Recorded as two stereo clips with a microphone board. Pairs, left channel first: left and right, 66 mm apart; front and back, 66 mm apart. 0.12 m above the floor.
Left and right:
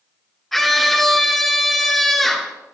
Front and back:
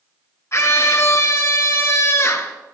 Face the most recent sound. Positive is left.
turn(degrees=5)